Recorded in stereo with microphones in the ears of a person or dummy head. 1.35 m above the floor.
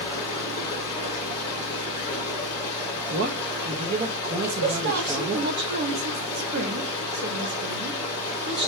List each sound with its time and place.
0.0 s running water: 25° left (ahead or behind), 4 m
3.1 s a man speaking: 45° right (ahead or behind), 1.1 m
4.4 s a woman speaking: 65° right (ahead or behind), 2.0 m